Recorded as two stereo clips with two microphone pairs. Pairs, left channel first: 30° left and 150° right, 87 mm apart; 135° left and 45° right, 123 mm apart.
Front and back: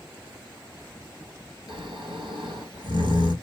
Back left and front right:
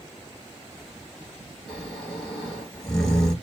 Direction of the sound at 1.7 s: 140° right.